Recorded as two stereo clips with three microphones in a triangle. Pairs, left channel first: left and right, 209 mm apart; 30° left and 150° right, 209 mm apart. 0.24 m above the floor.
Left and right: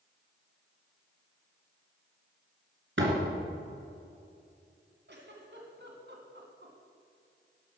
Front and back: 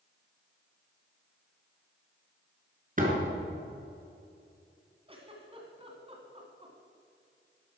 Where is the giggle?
90° right, 1.9 m.